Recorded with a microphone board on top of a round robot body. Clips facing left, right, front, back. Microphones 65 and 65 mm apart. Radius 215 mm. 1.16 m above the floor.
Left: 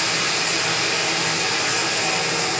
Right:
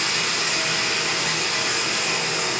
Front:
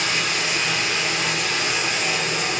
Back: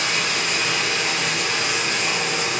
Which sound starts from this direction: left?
Running water, at 0.0 s.